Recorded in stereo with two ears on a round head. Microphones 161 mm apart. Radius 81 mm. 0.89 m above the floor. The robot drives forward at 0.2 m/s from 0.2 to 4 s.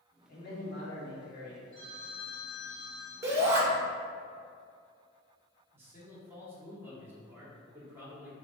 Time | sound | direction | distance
0.3 | a man speaking | 50° left (ahead or behind) | 1.9 m
1.7 | a phone ringing | 60° left (ahead or behind) | 1.9 m
3.2 | a shout | 15° right (ahead or behind) | 1.3 m
5.7 | a man speaking | 15° right (ahead or behind) | 1.7 m